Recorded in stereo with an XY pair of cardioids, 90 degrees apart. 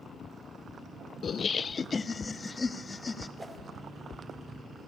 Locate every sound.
1.2 s laughter: 55° left, 0.5 m; by 3.3 s 30° left, 2 m
3.4 s a whoosh: 25° right, 2.5 m